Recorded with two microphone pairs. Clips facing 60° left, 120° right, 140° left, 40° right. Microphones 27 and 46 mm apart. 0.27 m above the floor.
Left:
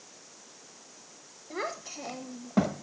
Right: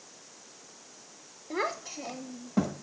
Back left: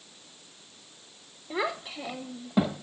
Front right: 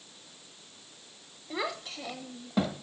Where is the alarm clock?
No alarm clock in this recording.